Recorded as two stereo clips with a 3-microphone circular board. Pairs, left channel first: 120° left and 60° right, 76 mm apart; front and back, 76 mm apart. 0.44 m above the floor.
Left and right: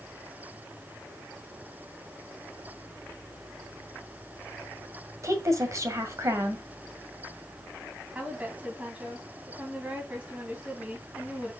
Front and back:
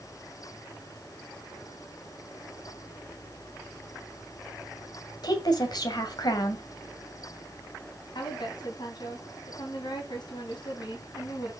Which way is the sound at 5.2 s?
15° right.